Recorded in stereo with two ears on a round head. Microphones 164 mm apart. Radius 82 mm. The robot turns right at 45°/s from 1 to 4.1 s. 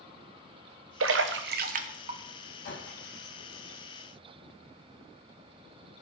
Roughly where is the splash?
Right.